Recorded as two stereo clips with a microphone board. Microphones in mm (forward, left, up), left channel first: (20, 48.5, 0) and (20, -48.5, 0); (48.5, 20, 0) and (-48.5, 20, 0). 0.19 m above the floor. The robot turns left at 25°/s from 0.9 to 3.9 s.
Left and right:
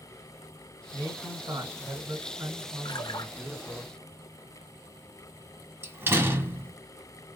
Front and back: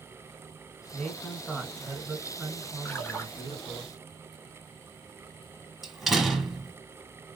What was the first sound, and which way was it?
A man speaking, 75° right.